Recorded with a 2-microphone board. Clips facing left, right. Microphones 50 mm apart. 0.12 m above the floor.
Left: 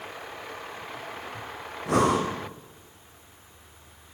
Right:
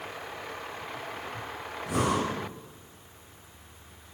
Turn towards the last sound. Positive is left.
turn(degrees=65)  # may be behind; listen again after turning